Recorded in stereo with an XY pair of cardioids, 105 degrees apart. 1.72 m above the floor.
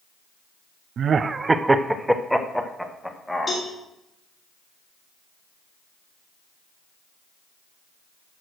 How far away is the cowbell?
About 3.5 m.